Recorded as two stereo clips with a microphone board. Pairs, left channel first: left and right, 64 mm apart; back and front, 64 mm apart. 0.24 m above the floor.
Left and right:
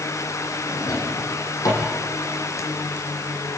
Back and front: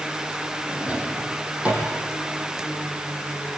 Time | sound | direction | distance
0.7 | a drawer | 65° left | 6 m